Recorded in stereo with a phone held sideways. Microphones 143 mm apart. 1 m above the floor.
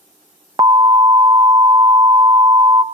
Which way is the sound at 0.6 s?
25° right (ahead or behind).